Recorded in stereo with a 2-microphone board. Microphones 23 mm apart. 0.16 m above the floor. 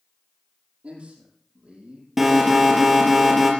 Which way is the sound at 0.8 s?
50° right (ahead or behind).